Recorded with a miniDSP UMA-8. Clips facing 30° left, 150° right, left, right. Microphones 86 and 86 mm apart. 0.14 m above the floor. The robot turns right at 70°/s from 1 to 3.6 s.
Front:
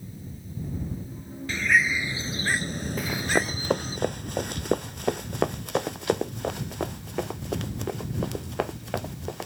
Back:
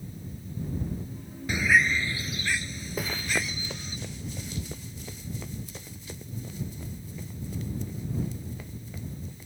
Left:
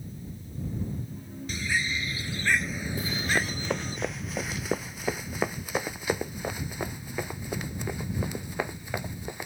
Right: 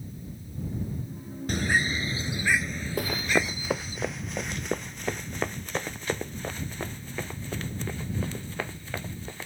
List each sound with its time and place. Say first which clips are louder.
1.5 s a bird: even, right 4 dB; 80° right; by 4.0 s 70° left
3.0 s running footsteps: front 4 dB, right 3 dB; 65° right; by 9.5 s 15° left